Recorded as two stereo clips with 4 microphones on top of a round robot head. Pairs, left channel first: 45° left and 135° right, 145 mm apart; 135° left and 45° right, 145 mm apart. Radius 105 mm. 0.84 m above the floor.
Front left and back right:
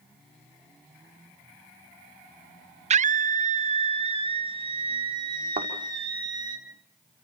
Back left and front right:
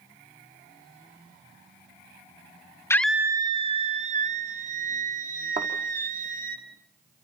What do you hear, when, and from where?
2.9 s a scream: 160° right, 0.6 m; by 6.6 s 70° right, 3.5 m
5.6 s a thud: 80° right, 5 m